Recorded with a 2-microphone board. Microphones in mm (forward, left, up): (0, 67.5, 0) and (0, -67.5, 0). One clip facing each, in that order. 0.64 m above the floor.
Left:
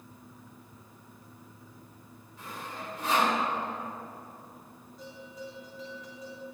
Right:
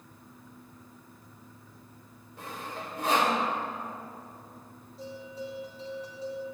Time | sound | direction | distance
2.4 | sawing | 70° right (ahead or behind) | 2.5 m
5.0 | a bell | 30° right (ahead or behind) | 3 m